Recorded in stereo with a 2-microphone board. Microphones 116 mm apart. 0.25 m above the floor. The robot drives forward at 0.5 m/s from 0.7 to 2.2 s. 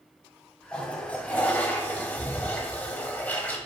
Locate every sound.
0.7 s a toilet flushing: 10° left (ahead or behind), 0.8 m; by 3.6 s 15° left (ahead or behind), 0.5 m